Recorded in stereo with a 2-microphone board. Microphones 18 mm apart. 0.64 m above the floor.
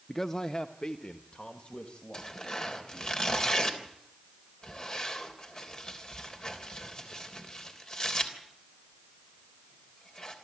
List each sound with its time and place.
0.1 s a man speaking: 10° left (ahead or behind), 0.6 m; by 3.1 s 65° left (ahead or behind), 4 m
2.1 s tearing paper: 40° left (ahead or behind), 3 m